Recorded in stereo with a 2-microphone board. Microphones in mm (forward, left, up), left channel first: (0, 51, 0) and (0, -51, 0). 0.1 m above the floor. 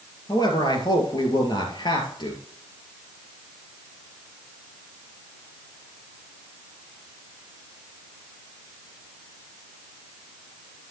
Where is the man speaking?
45° left (ahead or behind), 2 m; by 2.4 s 50° left (ahead or behind), 2.5 m.